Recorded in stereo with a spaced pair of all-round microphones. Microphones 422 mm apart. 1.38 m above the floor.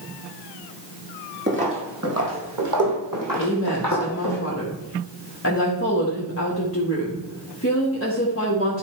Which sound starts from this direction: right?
Footsteps, at 1.5 s.